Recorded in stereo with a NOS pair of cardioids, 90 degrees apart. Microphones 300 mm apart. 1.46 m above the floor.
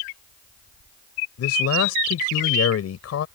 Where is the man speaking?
60° left.